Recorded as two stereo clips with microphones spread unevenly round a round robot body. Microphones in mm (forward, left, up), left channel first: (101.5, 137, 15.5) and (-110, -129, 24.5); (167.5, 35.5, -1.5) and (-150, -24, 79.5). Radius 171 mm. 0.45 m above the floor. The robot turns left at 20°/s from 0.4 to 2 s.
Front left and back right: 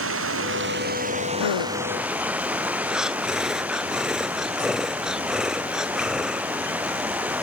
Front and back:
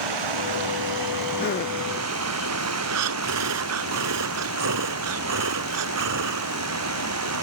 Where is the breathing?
145° left.